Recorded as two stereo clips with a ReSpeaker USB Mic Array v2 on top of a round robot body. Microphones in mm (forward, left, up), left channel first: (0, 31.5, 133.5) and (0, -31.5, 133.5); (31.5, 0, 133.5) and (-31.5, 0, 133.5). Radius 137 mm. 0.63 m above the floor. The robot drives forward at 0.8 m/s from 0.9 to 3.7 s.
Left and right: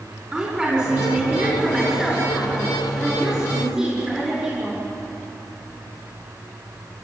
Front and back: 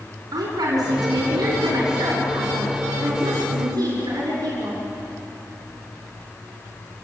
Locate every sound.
0.3 s a woman speaking: 165° right, 6 m; by 4.8 s 170° right, 8.5 m